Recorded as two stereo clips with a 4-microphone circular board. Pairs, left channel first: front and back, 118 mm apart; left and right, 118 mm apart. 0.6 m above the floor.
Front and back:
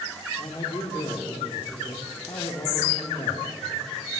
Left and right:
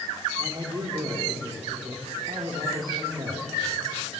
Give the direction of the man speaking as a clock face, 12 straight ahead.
2 o'clock.